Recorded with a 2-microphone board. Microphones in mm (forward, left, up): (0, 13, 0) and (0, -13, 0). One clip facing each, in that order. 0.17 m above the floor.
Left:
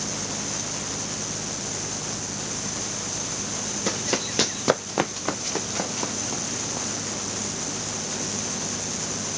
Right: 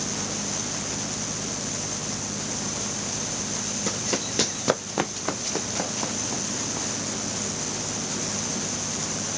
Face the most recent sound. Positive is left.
turn(degrees=0)  # may be behind; listen again after turning